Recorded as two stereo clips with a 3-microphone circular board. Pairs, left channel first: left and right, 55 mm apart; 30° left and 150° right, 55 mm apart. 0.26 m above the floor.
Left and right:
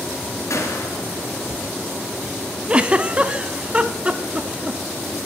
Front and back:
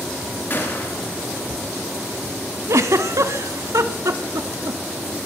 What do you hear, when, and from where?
0.5 s a gunshot: 75° left, 4 m
2.7 s a giggle: 160° right, 0.6 m